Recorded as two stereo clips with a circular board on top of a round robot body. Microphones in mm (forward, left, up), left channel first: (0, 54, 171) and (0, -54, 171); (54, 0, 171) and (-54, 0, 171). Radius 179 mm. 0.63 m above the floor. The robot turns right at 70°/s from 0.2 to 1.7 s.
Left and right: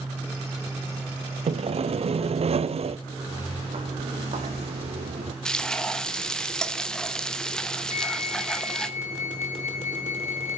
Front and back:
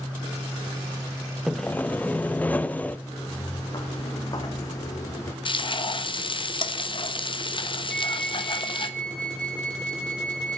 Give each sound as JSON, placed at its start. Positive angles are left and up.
{"t": 1.5, "sound": "sawing", "azimuth_deg": -90, "distance_m": 0.8}
{"t": 3.1, "sound": "footsteps", "azimuth_deg": -55, "distance_m": 3.5}
{"t": 5.5, "sound": "frying", "azimuth_deg": 10, "distance_m": 1.5}
{"t": 7.9, "sound": "a flute", "azimuth_deg": 80, "distance_m": 0.8}